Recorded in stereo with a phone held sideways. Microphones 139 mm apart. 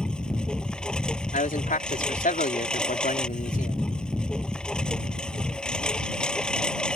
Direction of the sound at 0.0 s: 5° left (ahead or behind).